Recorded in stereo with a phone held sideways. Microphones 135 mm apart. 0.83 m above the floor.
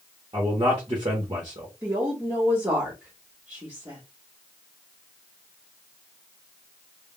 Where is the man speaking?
40° right (ahead or behind), 0.9 m.